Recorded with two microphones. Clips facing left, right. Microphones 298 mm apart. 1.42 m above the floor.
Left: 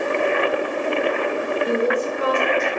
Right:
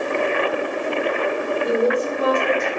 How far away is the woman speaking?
About 5 m.